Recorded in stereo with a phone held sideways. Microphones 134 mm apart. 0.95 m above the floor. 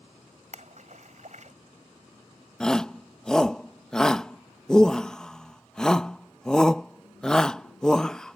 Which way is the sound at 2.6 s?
5° left (ahead or behind).